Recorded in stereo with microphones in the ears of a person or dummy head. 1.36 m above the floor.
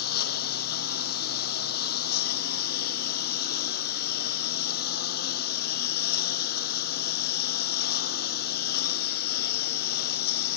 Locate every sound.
0.0 s a lawn mower: 55° left (ahead or behind)